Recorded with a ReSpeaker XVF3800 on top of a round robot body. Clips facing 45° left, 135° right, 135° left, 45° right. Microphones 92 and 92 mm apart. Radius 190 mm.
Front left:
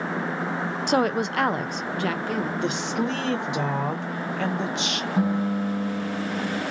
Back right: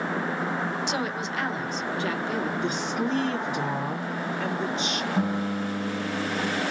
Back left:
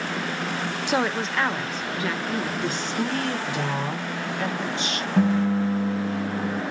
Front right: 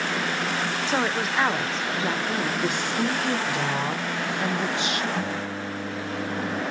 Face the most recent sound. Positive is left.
turn(degrees=130)